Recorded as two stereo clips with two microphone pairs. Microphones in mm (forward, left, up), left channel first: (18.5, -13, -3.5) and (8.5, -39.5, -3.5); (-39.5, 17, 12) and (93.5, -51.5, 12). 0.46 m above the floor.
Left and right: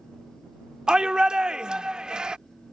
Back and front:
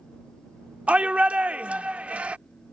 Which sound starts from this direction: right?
A shout, at 0.9 s.